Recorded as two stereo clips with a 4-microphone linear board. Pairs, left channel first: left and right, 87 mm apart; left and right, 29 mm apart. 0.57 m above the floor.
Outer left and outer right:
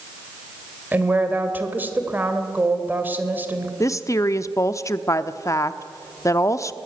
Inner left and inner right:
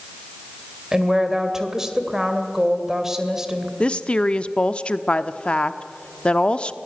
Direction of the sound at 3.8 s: 35° left (ahead or behind).